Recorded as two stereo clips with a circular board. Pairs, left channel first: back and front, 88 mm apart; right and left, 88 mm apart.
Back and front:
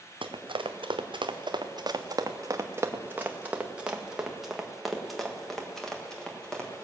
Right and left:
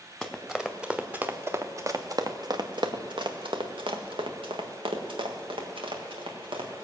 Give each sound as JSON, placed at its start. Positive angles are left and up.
{"t": 0.2, "sound": "running footsteps", "azimuth_deg": 0, "distance_m": 1.4}